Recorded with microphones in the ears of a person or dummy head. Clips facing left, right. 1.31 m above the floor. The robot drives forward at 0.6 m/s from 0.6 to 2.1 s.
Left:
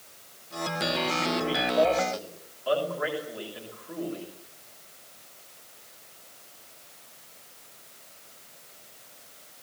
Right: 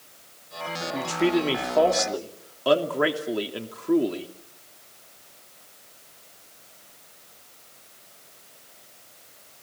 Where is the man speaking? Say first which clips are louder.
Right 9 dB; 80° right, 3 m; by 4.3 s 85° right, 3 m.